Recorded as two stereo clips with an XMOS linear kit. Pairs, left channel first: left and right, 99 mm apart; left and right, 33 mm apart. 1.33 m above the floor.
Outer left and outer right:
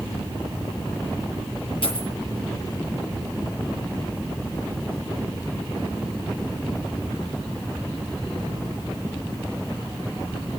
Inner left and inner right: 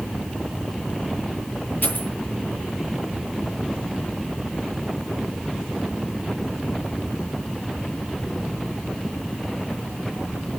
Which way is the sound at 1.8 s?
65° left (ahead or behind).